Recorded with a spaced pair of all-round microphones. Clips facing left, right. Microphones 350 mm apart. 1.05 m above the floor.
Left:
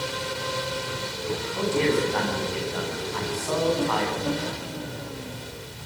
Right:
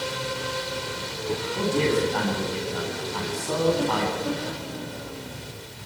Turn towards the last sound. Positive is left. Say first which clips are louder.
# even
turn(degrees=-45)  # may be behind; listen again after turning